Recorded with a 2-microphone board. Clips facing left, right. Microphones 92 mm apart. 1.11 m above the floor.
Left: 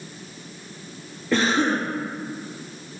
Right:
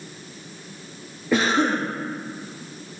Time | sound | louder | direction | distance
1.3 | a cough | right 1 dB | 10° right (ahead or behind) | 1.6 m